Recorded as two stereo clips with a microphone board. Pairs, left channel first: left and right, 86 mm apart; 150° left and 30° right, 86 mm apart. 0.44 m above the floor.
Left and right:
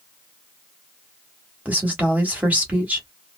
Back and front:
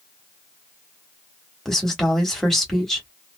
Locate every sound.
1.6 s a woman speaking: 130° right, 1.2 m